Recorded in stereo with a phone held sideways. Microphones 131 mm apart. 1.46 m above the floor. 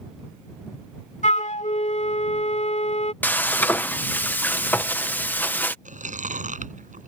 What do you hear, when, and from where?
1.2 s a flute: 65° left (ahead or behind)
3.2 s frying: 15° left (ahead or behind)
5.8 s chewing: 70° right (ahead or behind)